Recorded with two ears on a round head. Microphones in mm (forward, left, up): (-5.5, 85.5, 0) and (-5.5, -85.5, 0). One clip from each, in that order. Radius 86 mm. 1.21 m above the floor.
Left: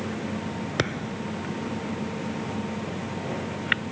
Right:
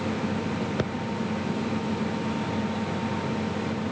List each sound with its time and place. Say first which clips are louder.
0.8 s a thud: left 2 dB; 55° left (ahead or behind)